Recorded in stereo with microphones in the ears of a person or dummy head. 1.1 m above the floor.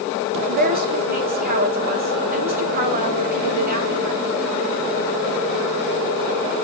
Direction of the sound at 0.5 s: 40° right (ahead or behind).